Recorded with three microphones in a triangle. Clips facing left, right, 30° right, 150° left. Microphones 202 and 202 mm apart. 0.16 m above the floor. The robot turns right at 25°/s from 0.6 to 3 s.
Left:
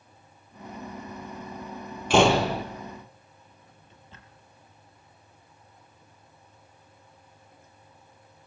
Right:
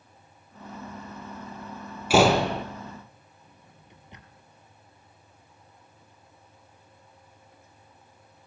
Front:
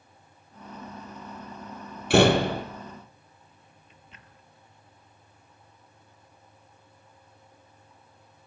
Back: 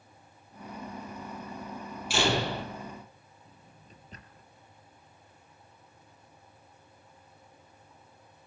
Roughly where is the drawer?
Behind.